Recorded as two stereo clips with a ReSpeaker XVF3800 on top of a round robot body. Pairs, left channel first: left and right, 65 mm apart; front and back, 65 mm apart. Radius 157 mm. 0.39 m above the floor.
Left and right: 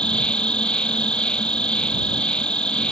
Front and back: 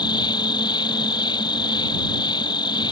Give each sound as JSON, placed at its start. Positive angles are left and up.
{"t": 0.0, "sound": "an insect", "azimuth_deg": 15}